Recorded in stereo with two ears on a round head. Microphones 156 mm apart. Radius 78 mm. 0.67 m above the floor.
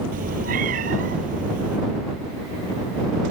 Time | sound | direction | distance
0.1 | a cat meowing | 50° right (ahead or behind) | ?